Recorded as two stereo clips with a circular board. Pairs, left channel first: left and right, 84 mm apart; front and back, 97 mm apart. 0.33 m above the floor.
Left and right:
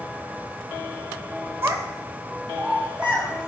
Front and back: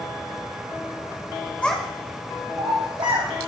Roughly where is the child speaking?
Ahead right.